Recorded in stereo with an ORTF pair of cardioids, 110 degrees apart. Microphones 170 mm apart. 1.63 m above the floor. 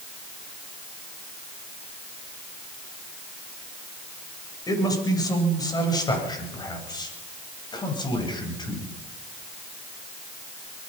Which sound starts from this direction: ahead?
A man speaking, at 4.7 s.